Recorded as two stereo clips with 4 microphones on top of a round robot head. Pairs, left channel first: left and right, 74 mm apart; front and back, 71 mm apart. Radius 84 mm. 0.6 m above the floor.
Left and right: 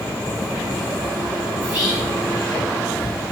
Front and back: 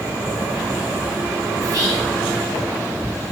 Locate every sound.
1.6 s whispering: 155° right, 1.3 m